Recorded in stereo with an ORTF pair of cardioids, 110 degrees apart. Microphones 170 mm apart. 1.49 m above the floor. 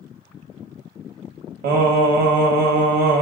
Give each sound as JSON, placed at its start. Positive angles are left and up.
{"t": 1.6, "sound": "singing", "azimuth_deg": -70, "distance_m": 1.1}